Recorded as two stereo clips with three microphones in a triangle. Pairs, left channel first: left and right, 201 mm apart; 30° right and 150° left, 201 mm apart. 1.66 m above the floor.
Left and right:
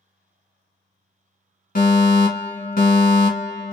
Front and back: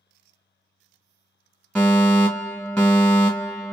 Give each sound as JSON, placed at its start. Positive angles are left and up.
{"t": 1.8, "sound": "a fire alarm", "azimuth_deg": 55, "distance_m": 1.9}